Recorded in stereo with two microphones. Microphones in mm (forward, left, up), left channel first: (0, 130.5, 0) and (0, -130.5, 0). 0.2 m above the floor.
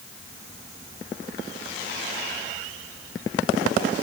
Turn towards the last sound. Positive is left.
No sound to turn to.